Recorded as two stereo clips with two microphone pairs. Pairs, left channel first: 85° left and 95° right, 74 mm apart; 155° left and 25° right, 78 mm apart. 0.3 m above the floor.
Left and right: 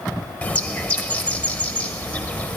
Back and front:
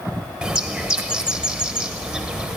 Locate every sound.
0.4 s a bird: 40° left, 0.6 m